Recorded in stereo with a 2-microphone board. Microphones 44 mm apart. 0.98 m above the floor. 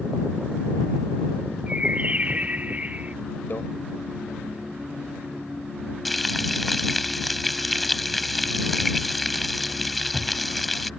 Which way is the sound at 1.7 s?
30° right (ahead or behind).